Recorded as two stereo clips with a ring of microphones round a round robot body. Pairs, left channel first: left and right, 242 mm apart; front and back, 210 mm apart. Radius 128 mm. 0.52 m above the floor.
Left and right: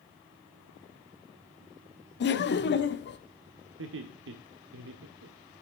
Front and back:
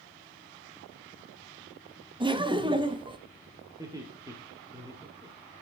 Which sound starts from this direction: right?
Laughter, at 3.8 s.